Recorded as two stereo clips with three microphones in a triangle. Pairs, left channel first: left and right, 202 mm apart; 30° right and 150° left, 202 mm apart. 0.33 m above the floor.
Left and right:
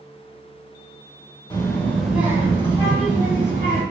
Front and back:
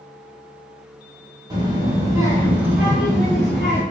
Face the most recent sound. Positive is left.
turn(degrees=-120)